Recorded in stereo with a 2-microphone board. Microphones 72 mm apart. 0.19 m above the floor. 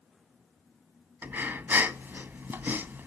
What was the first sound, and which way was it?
Breathing, 25° right (ahead or behind).